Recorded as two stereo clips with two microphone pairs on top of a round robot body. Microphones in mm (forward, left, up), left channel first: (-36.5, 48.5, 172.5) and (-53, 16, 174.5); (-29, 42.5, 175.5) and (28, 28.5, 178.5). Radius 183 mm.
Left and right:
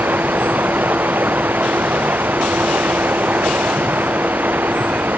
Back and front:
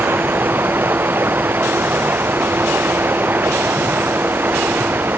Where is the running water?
75° right.